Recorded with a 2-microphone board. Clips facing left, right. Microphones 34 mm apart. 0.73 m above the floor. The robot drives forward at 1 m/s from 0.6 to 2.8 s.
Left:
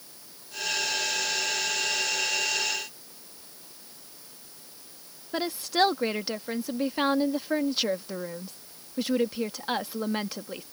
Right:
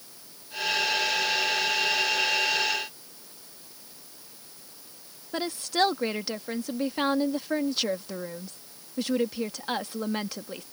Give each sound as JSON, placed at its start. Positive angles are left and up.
{"t": 5.3, "sound": "a woman speaking", "side_deg": 5}